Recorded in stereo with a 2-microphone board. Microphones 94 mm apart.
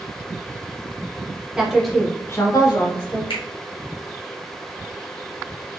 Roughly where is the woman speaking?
Centre.